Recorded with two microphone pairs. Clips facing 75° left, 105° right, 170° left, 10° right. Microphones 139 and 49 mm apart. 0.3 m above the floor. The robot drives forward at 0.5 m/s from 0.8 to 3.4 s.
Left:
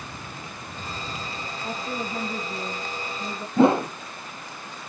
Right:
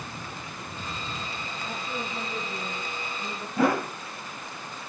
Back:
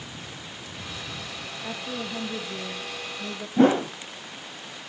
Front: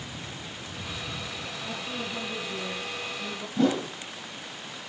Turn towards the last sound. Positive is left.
turn(degrees=135)